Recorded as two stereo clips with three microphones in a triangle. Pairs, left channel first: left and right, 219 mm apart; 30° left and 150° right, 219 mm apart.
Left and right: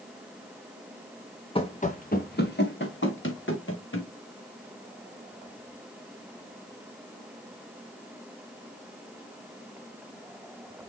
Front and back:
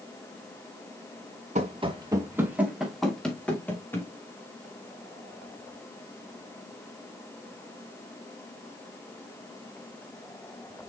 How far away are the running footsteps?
About 1.3 m.